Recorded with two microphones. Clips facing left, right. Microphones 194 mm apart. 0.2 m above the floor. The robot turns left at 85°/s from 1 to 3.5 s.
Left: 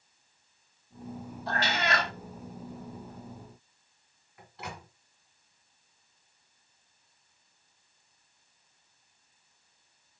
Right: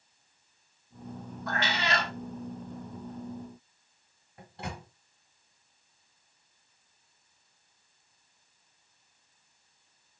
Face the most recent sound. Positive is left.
turn(degrees=-30)  # may be behind; listen again after turning